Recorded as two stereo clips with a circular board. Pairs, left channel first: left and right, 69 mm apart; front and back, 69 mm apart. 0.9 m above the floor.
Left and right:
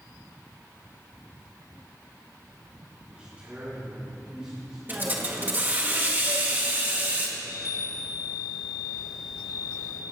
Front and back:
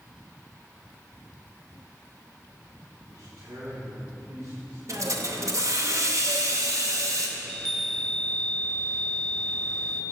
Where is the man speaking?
155° right, 2 m; by 4.8 s 165° right, 4 m.